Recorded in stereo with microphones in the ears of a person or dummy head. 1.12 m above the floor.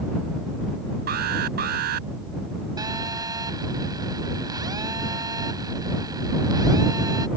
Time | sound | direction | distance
1.1 | an alarm | 55° right (ahead or behind) | ?
2.8 | a phone buzzing | 20° right (ahead or behind) | ?